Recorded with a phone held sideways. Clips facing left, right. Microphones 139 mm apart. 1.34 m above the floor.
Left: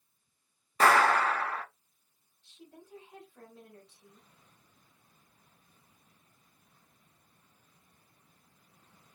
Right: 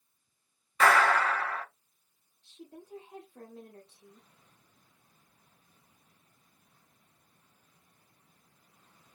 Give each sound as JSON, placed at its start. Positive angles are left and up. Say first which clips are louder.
{"t": 0.8, "sound": "a clap", "louder": "even", "side_deg": 35, "distance_m": 0.9}
{"t": 2.4, "sound": "a woman speaking", "louder": "right 4 dB", "side_deg": -40, "distance_m": 0.9}